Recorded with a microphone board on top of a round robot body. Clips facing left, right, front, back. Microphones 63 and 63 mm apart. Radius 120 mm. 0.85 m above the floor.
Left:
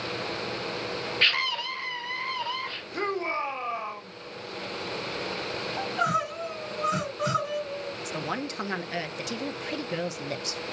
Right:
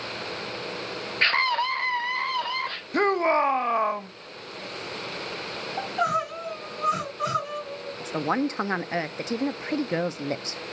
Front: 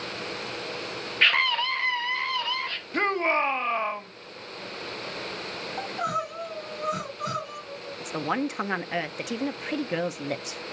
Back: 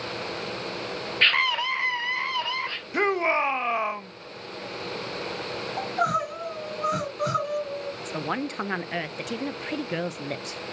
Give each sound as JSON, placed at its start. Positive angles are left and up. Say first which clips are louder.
{"t": 1.2, "sound": "a scream", "louder": "right 6 dB, even", "azimuth_deg": -75, "distance_m": 0.5}
{"t": 2.9, "sound": "a shout", "louder": "right 8 dB, back 1 dB", "azimuth_deg": -100, "distance_m": 1.0}
{"t": 5.8, "sound": "crying", "louder": "right 2 dB, back 4 dB", "azimuth_deg": 165, "distance_m": 5.5}
{"t": 8.0, "sound": "a woman speaking", "louder": "right 10 dB, front 4 dB", "azimuth_deg": -85, "distance_m": 0.7}